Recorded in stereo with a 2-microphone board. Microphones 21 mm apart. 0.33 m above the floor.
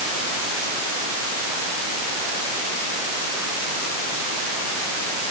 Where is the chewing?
No chewing in this recording.